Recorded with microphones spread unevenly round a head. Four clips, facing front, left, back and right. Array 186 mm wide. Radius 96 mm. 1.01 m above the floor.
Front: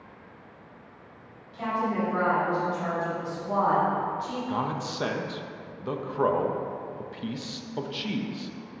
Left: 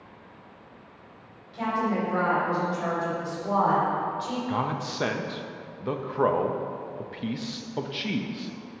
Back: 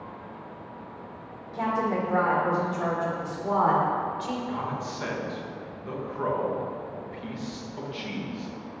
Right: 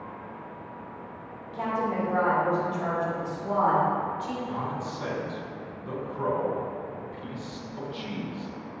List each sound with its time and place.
1.5 s a woman speaking: 165° right, 2.5 m; by 4.4 s 165° left, 3 m
4.5 s a man speaking: 65° left, 0.8 m